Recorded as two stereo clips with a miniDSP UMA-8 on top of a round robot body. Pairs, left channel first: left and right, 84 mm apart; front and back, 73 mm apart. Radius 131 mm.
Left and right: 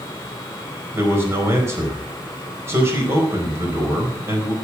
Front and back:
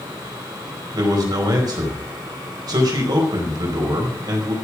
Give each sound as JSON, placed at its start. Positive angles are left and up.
{"t": 0.9, "sound": "a man speaking", "azimuth_deg": -150, "distance_m": 4.5}